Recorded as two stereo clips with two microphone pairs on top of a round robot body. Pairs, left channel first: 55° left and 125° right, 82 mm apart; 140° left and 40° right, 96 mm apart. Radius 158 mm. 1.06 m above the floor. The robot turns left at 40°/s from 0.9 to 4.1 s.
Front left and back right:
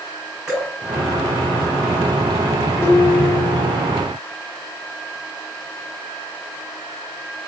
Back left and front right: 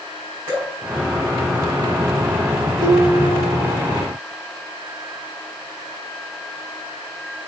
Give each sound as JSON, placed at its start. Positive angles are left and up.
{"t": 0.5, "sound": "dripping", "azimuth_deg": -85, "distance_m": 1.2}
{"t": 2.8, "sound": "dishes clattering", "azimuth_deg": 5, "distance_m": 2.0}